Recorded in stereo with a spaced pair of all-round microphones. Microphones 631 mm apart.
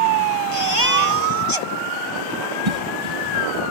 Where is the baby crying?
55° left (ahead or behind).